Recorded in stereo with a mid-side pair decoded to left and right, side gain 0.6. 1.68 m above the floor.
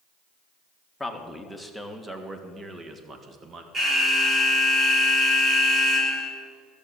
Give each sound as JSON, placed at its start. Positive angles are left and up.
{"t": 1.0, "sound": "a man speaking", "azimuth_deg": 5, "distance_m": 1.9}
{"t": 3.7, "sound": "an alarm", "azimuth_deg": -35, "distance_m": 4.0}